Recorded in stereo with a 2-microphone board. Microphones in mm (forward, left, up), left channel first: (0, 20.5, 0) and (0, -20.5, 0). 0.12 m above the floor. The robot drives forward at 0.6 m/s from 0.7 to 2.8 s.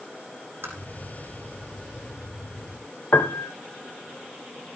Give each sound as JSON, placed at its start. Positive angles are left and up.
{"t": 0.6, "sound": "tapping", "side_deg": -70, "distance_m": 4.5}
{"t": 3.1, "sound": "a piano", "side_deg": 50, "distance_m": 0.7}